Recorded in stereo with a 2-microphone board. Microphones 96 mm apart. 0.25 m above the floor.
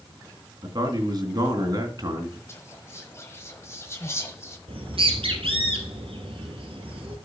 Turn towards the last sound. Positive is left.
turn(degrees=-70)  # may be behind; listen again after turning